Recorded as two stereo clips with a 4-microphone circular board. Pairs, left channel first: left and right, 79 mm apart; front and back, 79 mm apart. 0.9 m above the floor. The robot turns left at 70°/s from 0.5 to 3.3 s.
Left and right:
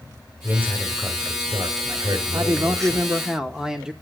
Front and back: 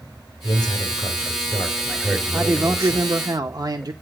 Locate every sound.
0.4 s a man speaking: 30° left, 2.5 m; by 3.1 s 150° right, 2.5 m
2.3 s a man speaking: 100° right, 0.9 m; by 3.9 s 170° right, 0.9 m